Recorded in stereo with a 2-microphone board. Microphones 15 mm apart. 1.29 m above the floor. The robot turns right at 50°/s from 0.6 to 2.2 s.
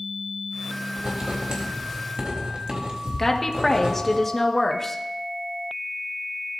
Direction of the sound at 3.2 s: 20° left (ahead or behind).